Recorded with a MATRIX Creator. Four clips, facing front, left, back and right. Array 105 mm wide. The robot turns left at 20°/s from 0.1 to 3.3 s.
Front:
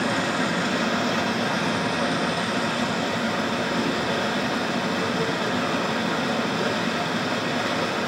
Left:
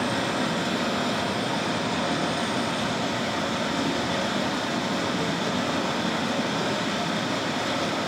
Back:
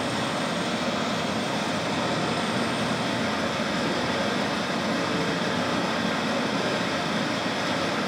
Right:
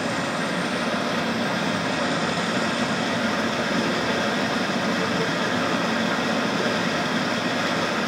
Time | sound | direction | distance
0.0 | running water | 20° right | 4 m